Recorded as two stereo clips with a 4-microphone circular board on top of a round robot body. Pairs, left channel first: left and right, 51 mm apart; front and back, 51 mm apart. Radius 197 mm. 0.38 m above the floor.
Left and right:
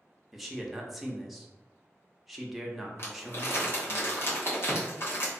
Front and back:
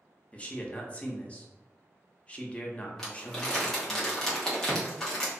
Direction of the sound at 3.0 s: 80° left.